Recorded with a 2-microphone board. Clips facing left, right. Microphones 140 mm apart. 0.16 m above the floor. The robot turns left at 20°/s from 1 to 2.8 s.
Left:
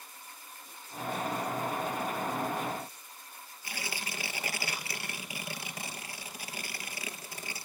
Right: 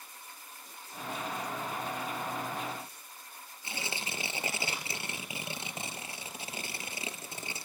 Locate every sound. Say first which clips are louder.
3.6 s tearing paper: right 1 dB; 25° right (ahead or behind), 2.5 m